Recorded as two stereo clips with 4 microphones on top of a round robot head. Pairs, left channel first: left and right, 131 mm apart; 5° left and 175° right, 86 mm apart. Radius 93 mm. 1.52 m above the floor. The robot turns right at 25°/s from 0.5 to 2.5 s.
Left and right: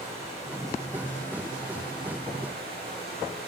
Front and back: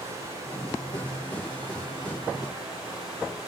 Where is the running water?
145° right, 7.5 m; by 3.5 s 95° right, 7.5 m.